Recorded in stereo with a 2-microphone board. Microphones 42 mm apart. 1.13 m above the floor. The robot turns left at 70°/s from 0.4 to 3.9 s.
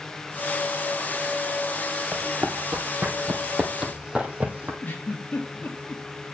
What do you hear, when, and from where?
2.1 s running footsteps: 65° right (ahead or behind), 2.5 m; by 4.7 s 40° right (ahead or behind), 2.5 m
4.8 s a giggle: 40° left (ahead or behind), 2.5 m